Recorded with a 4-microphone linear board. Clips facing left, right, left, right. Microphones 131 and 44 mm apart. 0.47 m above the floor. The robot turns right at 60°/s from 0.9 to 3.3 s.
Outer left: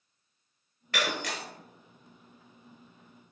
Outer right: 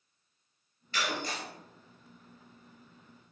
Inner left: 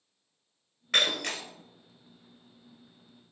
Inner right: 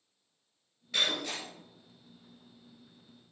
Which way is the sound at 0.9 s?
75° left.